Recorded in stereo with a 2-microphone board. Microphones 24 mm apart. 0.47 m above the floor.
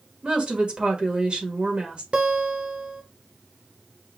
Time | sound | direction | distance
0.2 | a woman speaking | 45° right (ahead or behind) | 1.5 m
2.1 | a guitar | 50° right (ahead or behind) | 0.8 m